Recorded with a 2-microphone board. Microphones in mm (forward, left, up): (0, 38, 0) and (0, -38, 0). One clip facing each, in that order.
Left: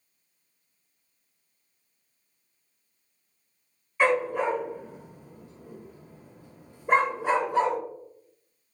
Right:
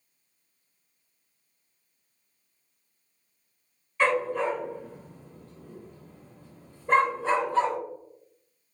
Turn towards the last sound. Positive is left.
turn(degrees=15)  # may be behind; listen again after turning